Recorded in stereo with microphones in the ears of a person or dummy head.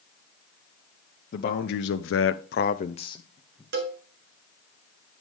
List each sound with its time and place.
1.3 s a man speaking: 45° left (ahead or behind), 0.9 m; by 3.6 s 20° left (ahead or behind), 1.1 m
3.7 s a cowbell: 50° right (ahead or behind), 1.5 m